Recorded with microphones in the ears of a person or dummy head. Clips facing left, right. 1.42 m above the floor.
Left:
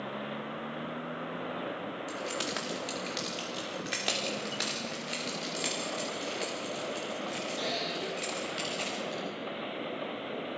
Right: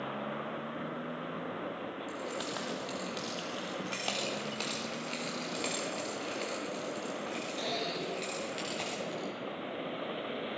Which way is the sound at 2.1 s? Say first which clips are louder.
Left 2 dB; 40° left (ahead or behind).